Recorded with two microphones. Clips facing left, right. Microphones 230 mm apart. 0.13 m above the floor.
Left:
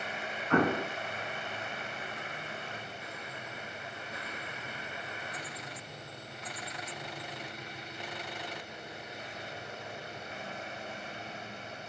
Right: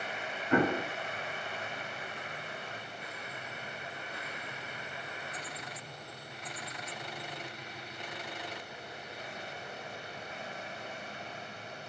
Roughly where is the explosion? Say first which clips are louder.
Even; centre.